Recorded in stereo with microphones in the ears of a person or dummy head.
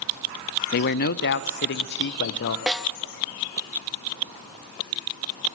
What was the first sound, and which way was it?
A man speaking, 45° left (ahead or behind).